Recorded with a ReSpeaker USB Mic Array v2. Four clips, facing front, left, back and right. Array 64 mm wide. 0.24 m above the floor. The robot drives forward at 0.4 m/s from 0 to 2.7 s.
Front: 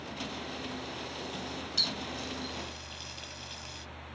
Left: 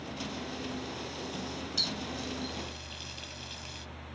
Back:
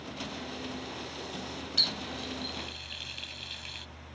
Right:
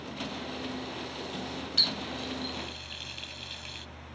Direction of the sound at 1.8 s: 110° right.